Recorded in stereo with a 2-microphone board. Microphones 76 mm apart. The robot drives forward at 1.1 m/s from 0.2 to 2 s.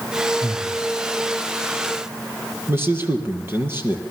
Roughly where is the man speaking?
Right.